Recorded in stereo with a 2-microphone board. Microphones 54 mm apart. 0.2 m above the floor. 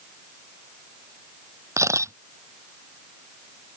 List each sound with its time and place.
1.8 s a camera shutter: 70° right (ahead or behind)